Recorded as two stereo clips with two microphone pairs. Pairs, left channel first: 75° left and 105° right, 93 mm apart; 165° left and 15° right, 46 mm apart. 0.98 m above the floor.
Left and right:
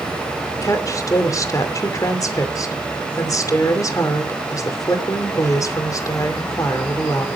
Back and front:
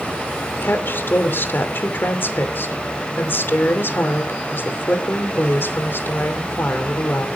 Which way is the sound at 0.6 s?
125° left.